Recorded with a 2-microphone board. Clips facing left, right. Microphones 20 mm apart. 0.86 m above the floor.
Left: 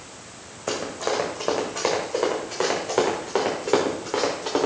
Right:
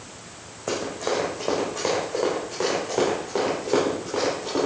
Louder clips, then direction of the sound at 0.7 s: Even; 10° left (ahead or behind).